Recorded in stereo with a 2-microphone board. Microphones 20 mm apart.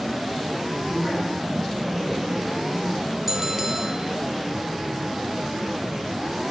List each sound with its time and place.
0.9 s a woman speaking: 55° left (ahead or behind), 7.5 m
3.3 s a bell: 15° right (ahead or behind), 0.9 m